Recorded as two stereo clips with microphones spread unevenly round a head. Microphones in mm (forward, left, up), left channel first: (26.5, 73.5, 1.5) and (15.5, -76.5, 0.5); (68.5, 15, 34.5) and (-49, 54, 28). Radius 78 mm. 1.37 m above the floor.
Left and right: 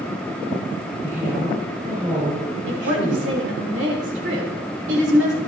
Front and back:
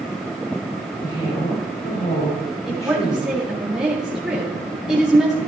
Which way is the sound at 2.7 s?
115° right.